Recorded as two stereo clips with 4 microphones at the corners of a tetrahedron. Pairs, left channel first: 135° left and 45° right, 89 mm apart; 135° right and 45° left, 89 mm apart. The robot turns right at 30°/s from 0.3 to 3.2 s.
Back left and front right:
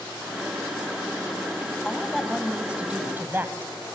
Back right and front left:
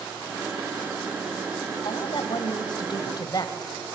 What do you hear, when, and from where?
1.9 s a woman speaking: 145° right, 1.7 m; by 3.9 s 105° right, 1.7 m